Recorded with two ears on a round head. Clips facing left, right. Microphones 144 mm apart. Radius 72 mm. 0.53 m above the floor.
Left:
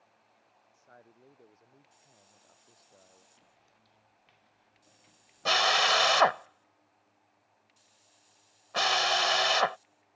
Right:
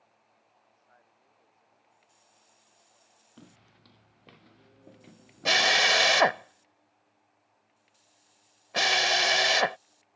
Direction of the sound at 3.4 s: 80° right.